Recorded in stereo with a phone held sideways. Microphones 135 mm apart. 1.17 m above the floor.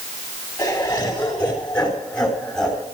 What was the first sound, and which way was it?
Laughter, 25° left (ahead or behind).